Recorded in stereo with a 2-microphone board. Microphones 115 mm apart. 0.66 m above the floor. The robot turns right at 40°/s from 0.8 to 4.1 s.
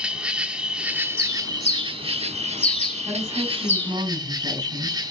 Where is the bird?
50° left (ahead or behind), 3.5 m; by 4.0 s 15° left (ahead or behind), 3.5 m.